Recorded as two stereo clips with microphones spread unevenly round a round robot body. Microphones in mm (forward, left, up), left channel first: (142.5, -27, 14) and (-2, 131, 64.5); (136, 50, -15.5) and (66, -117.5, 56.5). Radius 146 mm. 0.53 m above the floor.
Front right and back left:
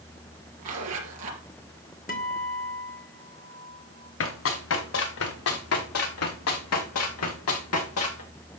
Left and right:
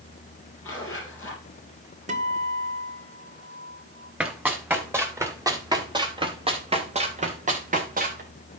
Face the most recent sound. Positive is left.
turn(degrees=-80)